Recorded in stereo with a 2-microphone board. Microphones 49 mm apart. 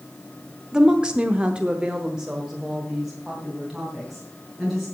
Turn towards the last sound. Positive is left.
turn(degrees=-5)  # may be behind; listen again after turning